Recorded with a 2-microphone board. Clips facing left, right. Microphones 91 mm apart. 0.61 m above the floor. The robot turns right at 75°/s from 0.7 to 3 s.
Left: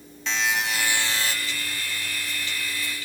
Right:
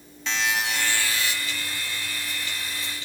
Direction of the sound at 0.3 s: Straight ahead.